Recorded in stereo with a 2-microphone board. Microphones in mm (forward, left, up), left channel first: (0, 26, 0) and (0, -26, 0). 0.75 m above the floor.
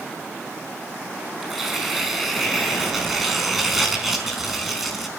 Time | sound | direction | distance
1.4 | tearing paper | 5° right (ahead or behind) | 4.5 m